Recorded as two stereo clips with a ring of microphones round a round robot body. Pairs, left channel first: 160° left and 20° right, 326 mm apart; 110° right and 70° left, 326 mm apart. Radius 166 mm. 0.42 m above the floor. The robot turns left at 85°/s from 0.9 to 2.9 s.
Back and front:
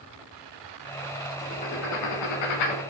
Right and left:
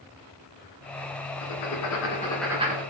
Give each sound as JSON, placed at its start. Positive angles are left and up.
{"t": 1.4, "sound": "writing", "azimuth_deg": -115, "distance_m": 0.9}